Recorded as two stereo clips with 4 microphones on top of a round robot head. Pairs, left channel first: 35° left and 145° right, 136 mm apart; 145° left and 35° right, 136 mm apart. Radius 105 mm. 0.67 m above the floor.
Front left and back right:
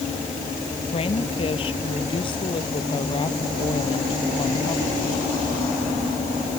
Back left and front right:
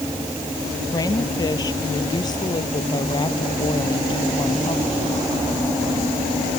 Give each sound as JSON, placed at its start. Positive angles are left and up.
{"t": 0.9, "sound": "a woman speaking", "azimuth_deg": 85}